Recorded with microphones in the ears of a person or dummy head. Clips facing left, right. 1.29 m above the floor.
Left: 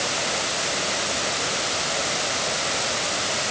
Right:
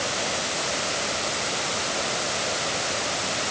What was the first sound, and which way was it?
Only background noise.